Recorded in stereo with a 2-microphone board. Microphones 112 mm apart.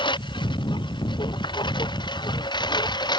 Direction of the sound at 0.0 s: 45° left (ahead or behind).